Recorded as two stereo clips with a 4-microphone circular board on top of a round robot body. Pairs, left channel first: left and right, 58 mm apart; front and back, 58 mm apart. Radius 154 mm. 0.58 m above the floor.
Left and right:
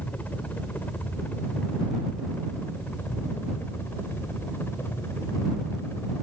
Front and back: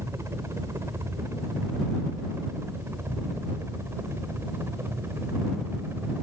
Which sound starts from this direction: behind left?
A helicopter, at 0.0 s.